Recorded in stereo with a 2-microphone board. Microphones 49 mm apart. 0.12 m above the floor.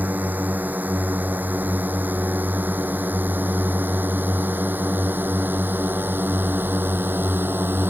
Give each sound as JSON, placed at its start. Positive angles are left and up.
{"t": 0.0, "sound": "a drone", "side_deg": -40}